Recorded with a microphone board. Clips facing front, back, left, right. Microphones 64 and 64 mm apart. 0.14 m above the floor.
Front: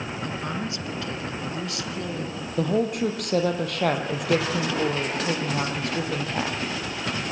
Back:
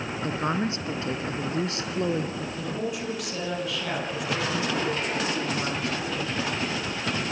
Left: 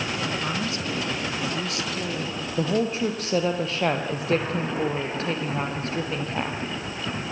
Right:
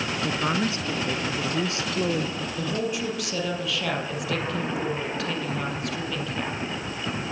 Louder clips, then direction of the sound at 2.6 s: Front 10 dB, left 5 dB; 35° left.